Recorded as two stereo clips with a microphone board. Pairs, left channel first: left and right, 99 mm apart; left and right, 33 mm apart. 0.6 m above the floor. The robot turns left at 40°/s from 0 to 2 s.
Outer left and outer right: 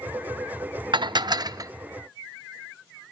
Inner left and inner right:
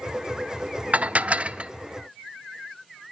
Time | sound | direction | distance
0.9 | dishes clattering | 105° right | 0.6 m